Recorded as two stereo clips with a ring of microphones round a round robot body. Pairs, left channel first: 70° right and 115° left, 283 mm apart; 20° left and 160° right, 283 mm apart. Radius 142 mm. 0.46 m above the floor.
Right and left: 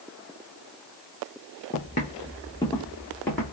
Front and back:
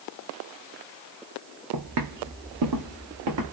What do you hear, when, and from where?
1.7 s footsteps: 125° right, 1.1 m; by 3.5 s 155° right, 1.9 m